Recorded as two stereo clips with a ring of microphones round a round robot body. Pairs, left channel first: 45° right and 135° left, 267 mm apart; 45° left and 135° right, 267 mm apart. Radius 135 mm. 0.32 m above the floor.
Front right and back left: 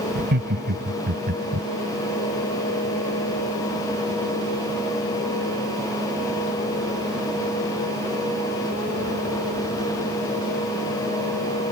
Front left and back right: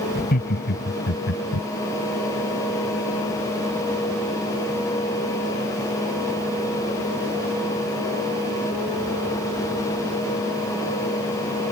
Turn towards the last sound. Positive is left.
turn(degrees=80)